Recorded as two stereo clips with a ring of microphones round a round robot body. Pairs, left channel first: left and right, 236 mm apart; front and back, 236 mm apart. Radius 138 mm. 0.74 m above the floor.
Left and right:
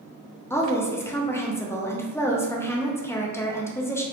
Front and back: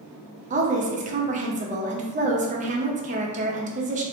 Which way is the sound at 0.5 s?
160° left.